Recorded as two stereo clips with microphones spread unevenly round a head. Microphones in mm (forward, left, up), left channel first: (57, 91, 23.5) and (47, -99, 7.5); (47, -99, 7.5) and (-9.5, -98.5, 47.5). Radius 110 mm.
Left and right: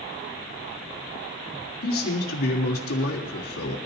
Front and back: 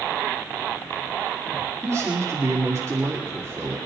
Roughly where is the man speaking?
Left.